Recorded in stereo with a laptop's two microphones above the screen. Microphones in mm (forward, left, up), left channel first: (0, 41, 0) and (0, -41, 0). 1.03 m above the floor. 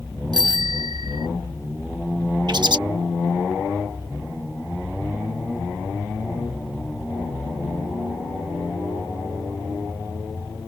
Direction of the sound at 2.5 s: 60° right (ahead or behind).